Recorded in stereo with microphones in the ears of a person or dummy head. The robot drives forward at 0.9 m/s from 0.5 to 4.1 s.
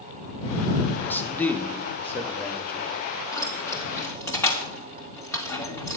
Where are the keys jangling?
10° left (ahead or behind), 2.0 m; by 6.0 s 5° left (ahead or behind), 2.5 m.